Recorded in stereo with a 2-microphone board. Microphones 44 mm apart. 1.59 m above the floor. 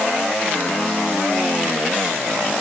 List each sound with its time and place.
Only background noise.